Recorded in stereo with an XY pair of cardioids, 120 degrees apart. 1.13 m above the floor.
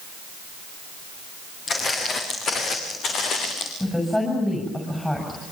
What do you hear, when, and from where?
1.7 s footsteps: 45° left, 8 m; by 3.7 s 65° left, 7 m
3.8 s a woman speaking: 10° left, 6.5 m